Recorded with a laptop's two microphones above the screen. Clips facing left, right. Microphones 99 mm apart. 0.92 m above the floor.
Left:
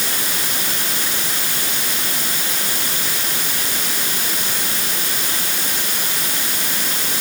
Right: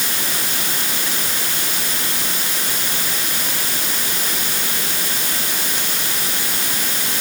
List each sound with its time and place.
Only background noise.